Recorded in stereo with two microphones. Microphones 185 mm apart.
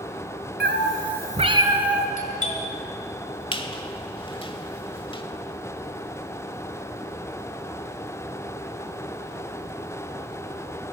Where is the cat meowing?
70° right (ahead or behind), 1.1 m; by 2.1 s centre (ahead or behind), 1.6 m.